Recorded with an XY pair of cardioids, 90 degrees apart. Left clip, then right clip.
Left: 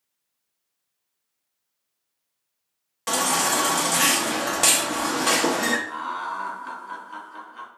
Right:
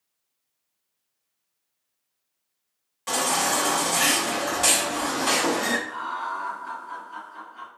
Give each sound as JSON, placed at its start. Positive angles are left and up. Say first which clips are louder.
{"t": 3.1, "sound": "a baby crying", "louder": "left 1 dB", "azimuth_deg": 55, "distance_m": 0.8}
{"t": 5.9, "sound": "laughter", "louder": "even", "azimuth_deg": 55, "distance_m": 0.9}